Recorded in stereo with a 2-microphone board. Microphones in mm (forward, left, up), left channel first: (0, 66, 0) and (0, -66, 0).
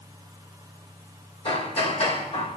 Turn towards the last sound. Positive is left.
turn(degrees=50)  # may be behind; listen again after turning